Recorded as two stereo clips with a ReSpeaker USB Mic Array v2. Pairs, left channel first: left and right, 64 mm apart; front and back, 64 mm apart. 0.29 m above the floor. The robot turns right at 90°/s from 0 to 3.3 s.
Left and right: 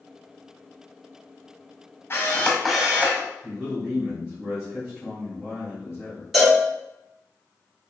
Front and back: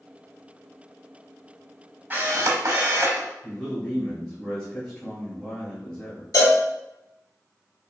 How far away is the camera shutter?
About 0.8 m.